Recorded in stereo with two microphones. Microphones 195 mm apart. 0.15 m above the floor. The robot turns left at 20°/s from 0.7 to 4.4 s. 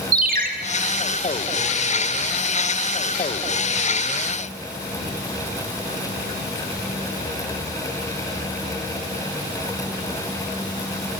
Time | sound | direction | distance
0.1 | a ringtone | 50° right (ahead or behind) | 1.1 m